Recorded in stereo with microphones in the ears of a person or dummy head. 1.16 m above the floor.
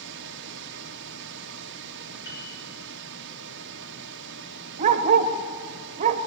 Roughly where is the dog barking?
Right.